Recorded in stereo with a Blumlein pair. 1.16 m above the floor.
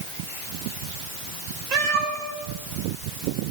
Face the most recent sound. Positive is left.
turn(degrees=-35)